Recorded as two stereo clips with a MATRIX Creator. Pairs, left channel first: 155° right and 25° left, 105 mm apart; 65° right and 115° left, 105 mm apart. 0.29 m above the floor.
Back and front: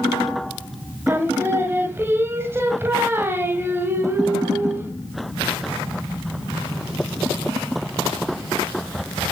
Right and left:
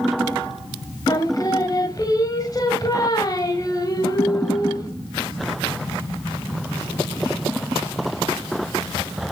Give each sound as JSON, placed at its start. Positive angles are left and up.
{"t": 1.1, "sound": "singing", "azimuth_deg": -35, "distance_m": 1.5}